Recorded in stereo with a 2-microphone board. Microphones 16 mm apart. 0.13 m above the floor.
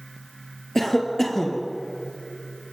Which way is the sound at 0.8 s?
20° left (ahead or behind).